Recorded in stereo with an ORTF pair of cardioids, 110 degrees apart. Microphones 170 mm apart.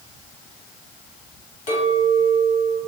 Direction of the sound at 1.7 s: 50° left.